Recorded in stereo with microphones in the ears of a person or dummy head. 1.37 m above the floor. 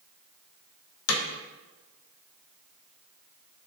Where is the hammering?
80° left, 1.2 m.